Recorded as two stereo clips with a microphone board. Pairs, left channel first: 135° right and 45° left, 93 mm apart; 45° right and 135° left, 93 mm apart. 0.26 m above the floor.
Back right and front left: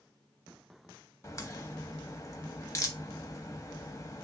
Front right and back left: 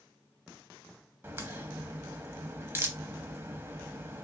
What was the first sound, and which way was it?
A crack, 175° right.